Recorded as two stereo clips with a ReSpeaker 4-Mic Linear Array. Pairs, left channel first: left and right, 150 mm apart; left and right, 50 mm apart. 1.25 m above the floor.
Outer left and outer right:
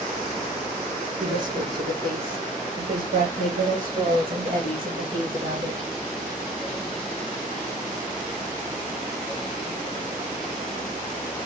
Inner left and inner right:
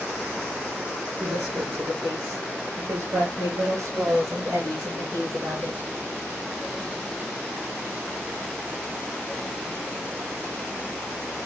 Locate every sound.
1.2 s a woman speaking: 80° right, 3 m